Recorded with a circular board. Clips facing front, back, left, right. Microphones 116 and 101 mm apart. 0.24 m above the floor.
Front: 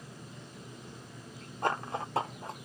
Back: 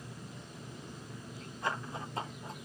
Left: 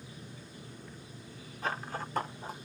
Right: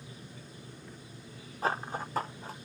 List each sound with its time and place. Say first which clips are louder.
1.6 s running footsteps: front 5 dB, right 4 dB; 40° right, 0.7 m; by 2.7 s 20° left, 0.9 m